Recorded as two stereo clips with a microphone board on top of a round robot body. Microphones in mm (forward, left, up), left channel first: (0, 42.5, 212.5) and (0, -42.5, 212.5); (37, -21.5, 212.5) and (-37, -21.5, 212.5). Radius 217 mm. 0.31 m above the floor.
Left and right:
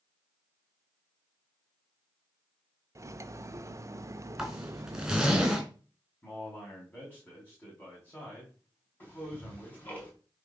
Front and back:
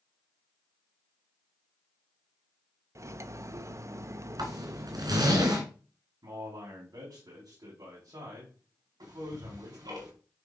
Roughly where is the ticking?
Behind left.